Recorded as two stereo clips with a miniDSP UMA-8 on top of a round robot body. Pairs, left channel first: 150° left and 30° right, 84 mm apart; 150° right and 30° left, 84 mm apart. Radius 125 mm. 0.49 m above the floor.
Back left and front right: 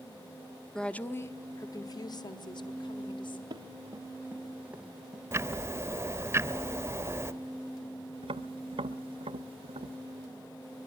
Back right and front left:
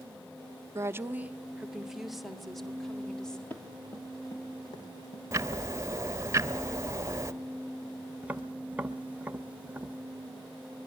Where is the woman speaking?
70° left, 1.0 m; by 3.4 s 125° left, 3 m.